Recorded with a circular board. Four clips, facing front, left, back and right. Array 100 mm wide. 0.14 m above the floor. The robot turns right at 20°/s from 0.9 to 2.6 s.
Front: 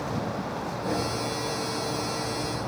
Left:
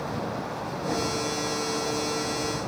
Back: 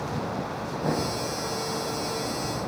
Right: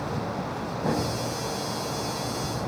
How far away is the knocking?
About 5 m.